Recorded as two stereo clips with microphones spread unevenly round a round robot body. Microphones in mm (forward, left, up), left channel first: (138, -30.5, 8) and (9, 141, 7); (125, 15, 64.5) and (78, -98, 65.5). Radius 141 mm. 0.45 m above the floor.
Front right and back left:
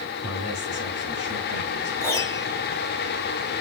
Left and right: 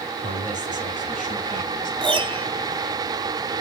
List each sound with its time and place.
0.2 s a man speaking: 105° right, 5.5 m; by 1.9 s 100° right, 5 m
2.0 s a piano: 125° right, 1.2 m